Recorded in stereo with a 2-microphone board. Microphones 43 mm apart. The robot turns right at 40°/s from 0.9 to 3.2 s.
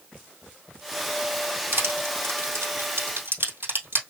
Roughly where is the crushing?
Right.